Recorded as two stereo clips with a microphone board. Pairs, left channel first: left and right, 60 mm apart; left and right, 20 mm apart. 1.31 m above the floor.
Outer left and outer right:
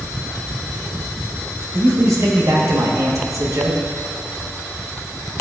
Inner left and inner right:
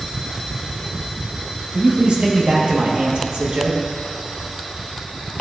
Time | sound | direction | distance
1.7 | a man speaking | 60° right (ahead or behind) | 1.4 m